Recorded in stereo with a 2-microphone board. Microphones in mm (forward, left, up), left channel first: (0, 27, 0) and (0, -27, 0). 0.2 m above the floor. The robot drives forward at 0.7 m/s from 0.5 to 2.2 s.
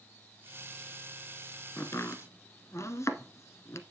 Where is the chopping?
55° left (ahead or behind), 1.2 m; by 3.8 s 60° left (ahead or behind), 1.1 m.